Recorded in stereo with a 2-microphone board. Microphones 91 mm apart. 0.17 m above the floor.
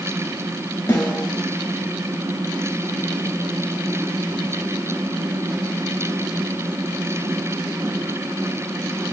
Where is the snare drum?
40° left (ahead or behind), 1.3 m.